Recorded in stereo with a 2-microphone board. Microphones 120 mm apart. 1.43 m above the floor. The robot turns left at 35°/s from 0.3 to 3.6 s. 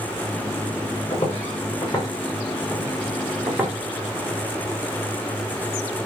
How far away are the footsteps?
About 7 m.